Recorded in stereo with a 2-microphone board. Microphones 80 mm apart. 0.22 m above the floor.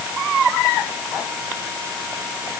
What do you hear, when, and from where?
Only background noise.